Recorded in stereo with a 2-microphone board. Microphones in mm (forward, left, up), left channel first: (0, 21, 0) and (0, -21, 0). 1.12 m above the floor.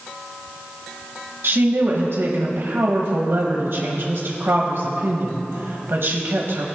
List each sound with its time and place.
1.4 s a woman speaking: 65° right (ahead or behind), 1.1 m